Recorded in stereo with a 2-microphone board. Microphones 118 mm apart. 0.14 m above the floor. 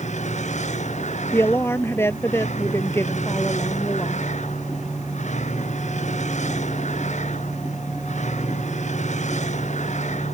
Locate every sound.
0.0 s a vehicle: 80° left
1.3 s a woman speaking: 20° left (ahead or behind)